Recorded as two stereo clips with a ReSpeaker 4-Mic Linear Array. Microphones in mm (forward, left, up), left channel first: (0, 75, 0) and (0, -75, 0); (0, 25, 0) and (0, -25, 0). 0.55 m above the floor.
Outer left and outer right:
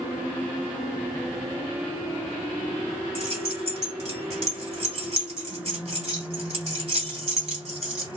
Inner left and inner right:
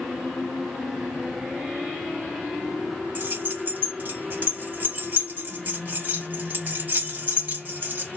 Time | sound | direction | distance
3.1 | keys jangling | 50° right (ahead or behind) | 2 m